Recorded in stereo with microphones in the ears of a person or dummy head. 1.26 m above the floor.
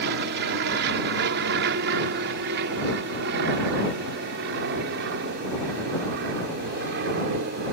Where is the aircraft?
60° right (ahead or behind).